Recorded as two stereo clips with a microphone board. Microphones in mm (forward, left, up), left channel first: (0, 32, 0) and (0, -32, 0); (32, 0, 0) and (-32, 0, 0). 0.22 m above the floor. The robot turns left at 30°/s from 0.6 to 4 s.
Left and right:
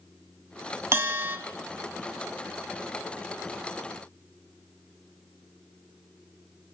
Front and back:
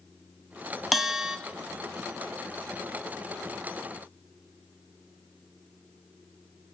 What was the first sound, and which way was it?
A bell, 95° right.